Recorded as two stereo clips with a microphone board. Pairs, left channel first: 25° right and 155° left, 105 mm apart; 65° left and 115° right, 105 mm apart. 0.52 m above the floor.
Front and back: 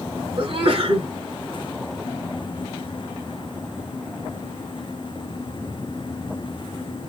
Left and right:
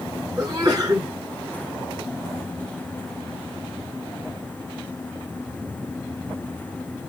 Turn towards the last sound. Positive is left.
turn(degrees=-165)